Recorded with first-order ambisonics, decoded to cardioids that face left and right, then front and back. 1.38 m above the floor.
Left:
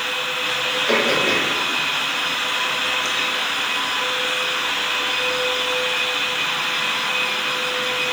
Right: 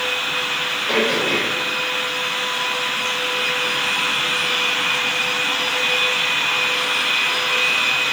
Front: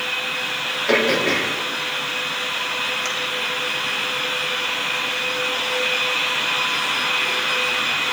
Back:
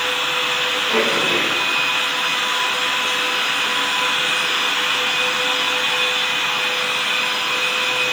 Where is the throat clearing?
20° left, 2.5 m.